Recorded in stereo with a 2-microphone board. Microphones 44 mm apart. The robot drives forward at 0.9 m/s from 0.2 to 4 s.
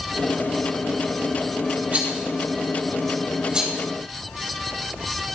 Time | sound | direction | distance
1.9 | a rattle | 35° right (ahead or behind) | 2.5 m